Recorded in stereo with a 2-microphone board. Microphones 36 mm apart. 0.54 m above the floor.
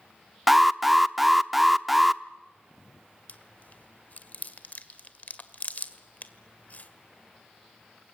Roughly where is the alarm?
Centre.